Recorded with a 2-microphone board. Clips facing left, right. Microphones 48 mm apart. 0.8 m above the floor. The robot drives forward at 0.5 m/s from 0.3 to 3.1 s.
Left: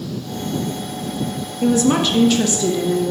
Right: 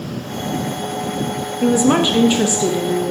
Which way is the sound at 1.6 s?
20° right (ahead or behind).